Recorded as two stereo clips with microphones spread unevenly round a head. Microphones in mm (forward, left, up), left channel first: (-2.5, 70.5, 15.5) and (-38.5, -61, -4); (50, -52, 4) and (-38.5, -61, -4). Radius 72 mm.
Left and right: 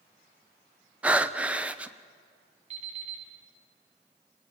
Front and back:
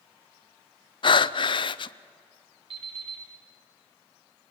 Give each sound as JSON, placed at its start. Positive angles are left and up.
{"t": 1.0, "sound": "breathing", "azimuth_deg": -25, "distance_m": 0.7}
{"t": 2.7, "sound": "an alarm clock", "azimuth_deg": -145, "distance_m": 7.0}